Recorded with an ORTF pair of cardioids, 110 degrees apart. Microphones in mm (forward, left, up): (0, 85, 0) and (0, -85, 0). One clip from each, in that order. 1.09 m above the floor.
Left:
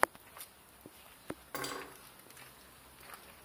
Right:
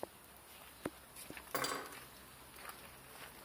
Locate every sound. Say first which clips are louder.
1.5 s cutlery clinking: right 2 dB; straight ahead, 0.9 m